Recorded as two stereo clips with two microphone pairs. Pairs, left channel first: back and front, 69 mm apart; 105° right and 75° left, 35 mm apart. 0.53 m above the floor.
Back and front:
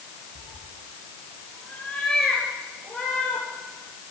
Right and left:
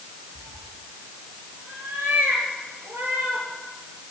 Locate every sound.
0.3 s a cat meowing: 105° left, 4.5 m; by 3.5 s 80° left, 5.5 m